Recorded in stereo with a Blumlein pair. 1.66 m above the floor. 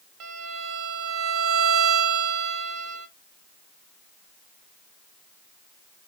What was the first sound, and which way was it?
A violin, 35° right.